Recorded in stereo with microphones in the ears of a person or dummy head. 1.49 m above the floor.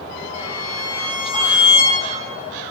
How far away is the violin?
About 2 m.